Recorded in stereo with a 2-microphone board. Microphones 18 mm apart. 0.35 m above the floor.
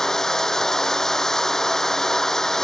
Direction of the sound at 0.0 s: 30° left (ahead or behind).